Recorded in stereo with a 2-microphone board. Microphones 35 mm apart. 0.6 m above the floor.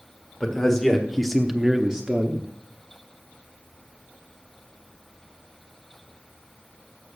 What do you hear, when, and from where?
0.4 s a man speaking: 10° left (ahead or behind), 1.6 m; by 2.5 s 20° right (ahead or behind), 1.4 m